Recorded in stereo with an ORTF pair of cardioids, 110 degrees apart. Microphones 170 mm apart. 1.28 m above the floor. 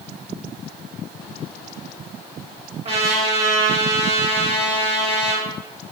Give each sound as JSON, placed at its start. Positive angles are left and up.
{"t": 2.9, "sound": "a trumpet", "azimuth_deg": -40, "distance_m": 1.0}